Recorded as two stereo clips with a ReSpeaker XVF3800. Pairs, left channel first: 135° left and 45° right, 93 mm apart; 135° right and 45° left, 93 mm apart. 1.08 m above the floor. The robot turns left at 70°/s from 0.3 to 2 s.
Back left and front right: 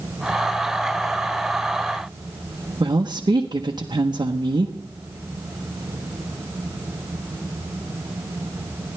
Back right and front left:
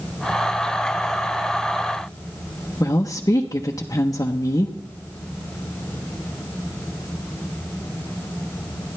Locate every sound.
2.8 s a woman speaking: 85° right, 0.8 m